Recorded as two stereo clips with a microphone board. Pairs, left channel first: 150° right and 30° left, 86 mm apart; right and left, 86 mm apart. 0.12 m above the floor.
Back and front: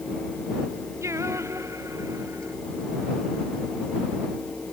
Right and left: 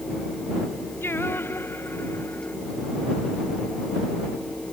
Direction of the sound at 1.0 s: 25° right.